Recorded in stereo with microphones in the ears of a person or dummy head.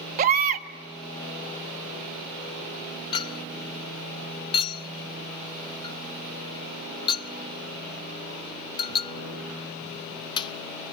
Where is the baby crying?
40° right (ahead or behind), 1.3 m.